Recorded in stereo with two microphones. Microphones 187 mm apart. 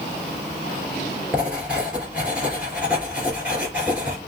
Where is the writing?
5° right (ahead or behind), 3 m.